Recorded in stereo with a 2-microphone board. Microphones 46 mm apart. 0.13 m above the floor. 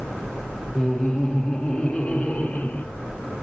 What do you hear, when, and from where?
0.8 s laughter: 5° left (ahead or behind), 2.5 m; by 2.9 s 30° left (ahead or behind), 2.5 m